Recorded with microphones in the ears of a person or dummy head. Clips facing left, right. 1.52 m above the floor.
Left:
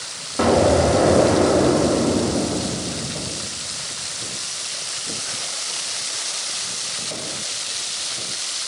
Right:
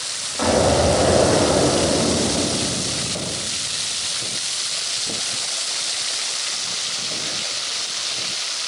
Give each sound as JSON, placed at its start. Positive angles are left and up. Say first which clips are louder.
{"t": 0.4, "sound": "an explosion", "louder": "left 2 dB", "side_deg": 50, "distance_m": 1.3}